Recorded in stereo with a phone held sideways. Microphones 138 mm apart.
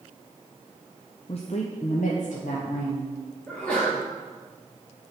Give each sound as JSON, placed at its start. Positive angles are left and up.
{"t": 1.3, "sound": "a woman speaking", "side_deg": 45, "distance_m": 0.5}
{"t": 3.5, "sound": "a sneeze", "side_deg": 10, "distance_m": 1.5}